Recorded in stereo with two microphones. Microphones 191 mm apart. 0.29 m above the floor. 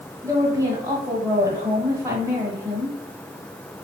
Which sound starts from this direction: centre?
A woman speaking, at 0.2 s.